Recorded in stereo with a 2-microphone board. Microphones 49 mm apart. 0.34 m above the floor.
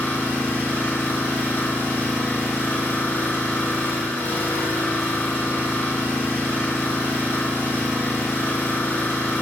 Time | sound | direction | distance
0.0 | an engine running | 60° left (ahead or behind) | 4 m